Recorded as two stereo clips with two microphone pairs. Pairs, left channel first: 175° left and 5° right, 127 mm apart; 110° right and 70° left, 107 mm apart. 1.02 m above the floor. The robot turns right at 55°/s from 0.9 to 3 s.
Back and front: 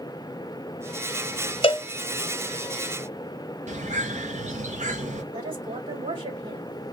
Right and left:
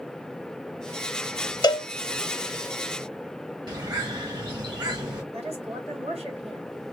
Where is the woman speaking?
45° left, 3.5 m.